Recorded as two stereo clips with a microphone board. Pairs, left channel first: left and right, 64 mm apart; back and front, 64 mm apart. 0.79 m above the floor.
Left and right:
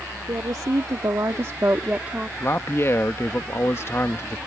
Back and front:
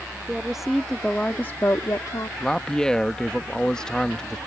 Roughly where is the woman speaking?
Right.